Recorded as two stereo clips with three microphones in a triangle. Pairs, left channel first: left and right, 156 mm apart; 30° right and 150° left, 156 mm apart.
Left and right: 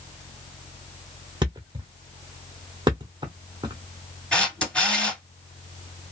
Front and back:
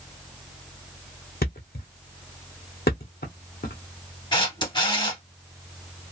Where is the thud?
25° right, 0.8 m.